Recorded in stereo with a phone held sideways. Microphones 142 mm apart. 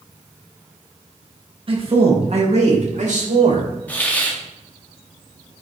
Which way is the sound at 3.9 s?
10° left (ahead or behind).